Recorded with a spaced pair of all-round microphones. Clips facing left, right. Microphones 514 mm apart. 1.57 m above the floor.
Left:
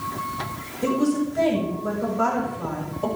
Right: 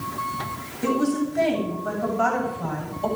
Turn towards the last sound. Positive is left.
turn(degrees=70)  # may be behind; listen again after turning